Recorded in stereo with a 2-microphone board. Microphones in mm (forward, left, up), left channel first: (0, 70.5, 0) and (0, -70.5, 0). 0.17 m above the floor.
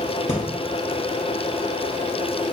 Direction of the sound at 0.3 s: 50° left (ahead or behind).